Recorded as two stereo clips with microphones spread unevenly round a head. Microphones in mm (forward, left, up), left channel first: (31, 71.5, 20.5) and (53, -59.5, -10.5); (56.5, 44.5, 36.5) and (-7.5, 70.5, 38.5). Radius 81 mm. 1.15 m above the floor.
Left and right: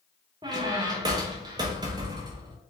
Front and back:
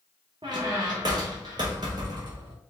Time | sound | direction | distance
0.4 | a squeak | 150° right | 0.5 m